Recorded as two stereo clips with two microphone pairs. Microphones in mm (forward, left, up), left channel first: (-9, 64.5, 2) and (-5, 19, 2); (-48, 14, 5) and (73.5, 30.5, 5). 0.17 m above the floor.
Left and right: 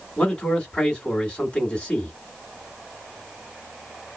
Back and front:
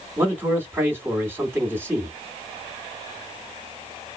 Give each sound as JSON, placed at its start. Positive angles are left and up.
{"t": 0.2, "sound": "a man speaking", "azimuth_deg": 55, "distance_m": 1.7}